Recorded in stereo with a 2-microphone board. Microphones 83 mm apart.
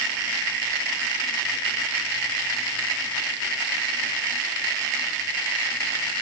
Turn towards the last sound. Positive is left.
No sound to turn to.